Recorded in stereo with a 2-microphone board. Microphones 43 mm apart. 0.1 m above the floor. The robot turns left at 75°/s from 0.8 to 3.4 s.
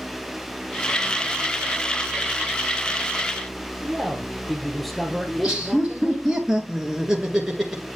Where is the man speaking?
5° left (ahead or behind), 1.6 m.